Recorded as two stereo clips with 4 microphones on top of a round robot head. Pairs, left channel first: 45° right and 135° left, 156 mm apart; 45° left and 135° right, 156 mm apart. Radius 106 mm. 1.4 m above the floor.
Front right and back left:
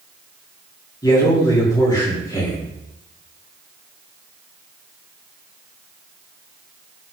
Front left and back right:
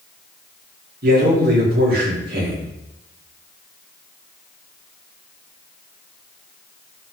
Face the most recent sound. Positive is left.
turn(degrees=-110)